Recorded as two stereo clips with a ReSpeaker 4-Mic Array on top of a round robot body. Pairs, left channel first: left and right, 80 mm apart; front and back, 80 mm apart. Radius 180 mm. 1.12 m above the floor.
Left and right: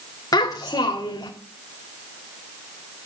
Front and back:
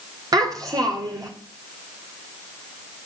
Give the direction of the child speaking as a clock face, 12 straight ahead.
7 o'clock.